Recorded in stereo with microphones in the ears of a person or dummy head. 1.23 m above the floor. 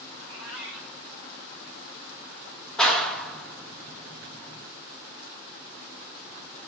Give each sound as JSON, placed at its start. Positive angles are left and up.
{"t": 0.2, "sound": "a cat meowing", "side_deg": 0, "distance_m": 1.7}
{"t": 2.8, "sound": "a clap", "side_deg": 0, "distance_m": 0.9}